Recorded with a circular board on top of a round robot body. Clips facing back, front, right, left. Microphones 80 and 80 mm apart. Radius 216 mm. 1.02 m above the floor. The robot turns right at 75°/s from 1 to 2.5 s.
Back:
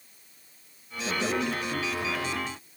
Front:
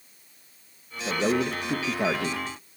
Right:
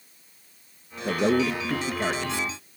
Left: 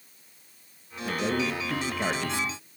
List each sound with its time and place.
1.1 s a man speaking: 80° right, 0.9 m; by 2.4 s 25° left, 0.9 m